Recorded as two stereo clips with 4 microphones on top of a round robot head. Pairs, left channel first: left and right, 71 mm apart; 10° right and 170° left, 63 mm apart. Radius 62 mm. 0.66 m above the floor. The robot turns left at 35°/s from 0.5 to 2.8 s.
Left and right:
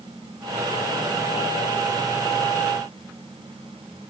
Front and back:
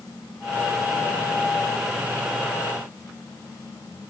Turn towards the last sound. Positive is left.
No sound to turn to.